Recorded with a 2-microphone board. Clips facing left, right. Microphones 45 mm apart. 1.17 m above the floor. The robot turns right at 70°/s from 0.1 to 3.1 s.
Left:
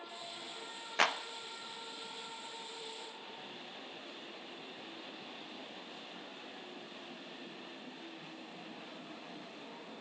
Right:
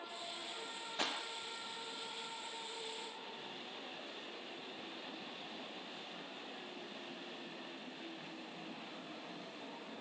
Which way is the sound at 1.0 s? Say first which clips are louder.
Left 9 dB; 75° left (ahead or behind).